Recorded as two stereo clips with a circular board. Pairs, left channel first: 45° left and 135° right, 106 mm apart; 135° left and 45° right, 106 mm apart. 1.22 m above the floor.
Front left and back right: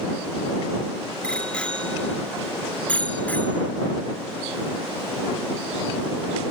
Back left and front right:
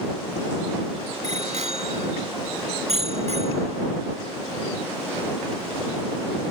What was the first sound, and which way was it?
A bicycle bell, 35° right.